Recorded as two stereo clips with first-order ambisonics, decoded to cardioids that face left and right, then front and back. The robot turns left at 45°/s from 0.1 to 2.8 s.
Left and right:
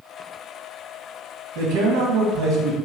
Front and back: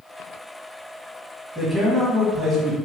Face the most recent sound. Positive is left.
turn(degrees=-130)